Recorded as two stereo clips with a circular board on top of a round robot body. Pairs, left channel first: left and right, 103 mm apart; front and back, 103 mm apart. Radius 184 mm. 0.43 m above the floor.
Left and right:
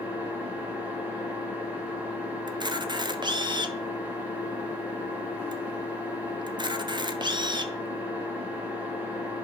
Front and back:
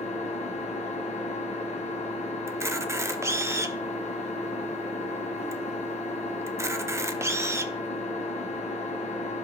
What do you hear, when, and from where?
0.0 s an engine running: 15° right, 1.3 m
2.5 s a camera shutter: 120° right, 1.0 m